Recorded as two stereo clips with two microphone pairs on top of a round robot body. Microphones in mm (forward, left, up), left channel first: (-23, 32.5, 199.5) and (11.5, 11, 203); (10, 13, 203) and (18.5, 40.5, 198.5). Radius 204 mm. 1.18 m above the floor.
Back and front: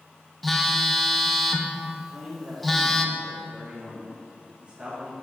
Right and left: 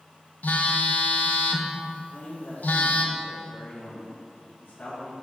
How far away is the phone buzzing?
About 0.8 m.